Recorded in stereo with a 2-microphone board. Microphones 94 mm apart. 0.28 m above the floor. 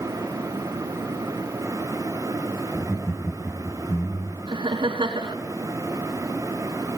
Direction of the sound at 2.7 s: 15° right (ahead or behind).